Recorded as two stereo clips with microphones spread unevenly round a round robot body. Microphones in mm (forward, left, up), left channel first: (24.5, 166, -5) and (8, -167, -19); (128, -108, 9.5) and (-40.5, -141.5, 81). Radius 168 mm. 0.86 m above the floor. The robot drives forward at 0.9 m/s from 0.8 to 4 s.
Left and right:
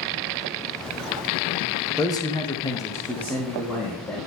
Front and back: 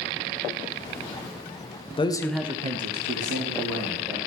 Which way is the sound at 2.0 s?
10° left.